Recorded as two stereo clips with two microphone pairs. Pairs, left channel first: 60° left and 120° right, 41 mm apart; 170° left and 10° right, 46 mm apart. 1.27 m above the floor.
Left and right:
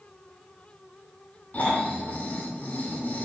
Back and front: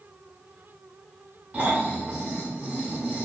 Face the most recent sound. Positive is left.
turn(degrees=25)